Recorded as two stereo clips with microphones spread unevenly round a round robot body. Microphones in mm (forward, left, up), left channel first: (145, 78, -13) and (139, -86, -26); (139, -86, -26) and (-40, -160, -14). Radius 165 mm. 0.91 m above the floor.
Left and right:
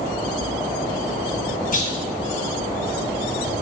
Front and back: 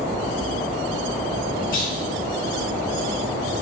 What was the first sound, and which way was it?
A clunk, 60° left.